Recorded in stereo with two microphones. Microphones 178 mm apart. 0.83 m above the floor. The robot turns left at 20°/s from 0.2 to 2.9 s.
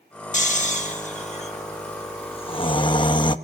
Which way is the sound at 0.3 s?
45° left (ahead or behind).